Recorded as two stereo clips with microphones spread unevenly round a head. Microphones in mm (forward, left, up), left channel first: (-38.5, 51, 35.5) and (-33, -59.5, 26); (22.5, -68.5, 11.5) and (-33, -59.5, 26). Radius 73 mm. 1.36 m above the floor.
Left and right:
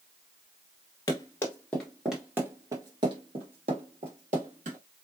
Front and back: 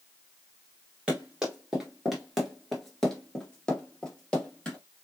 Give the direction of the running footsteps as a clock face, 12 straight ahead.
8 o'clock.